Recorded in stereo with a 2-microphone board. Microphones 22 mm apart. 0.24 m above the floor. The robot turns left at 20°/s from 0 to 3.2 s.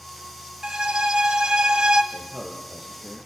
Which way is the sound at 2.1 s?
25° right (ahead or behind).